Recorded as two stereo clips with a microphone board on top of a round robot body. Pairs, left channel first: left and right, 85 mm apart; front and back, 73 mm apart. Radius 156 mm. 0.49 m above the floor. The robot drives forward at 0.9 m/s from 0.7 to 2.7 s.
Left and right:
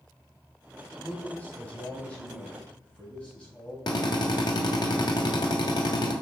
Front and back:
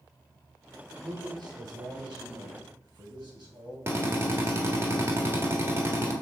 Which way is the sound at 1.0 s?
155° left.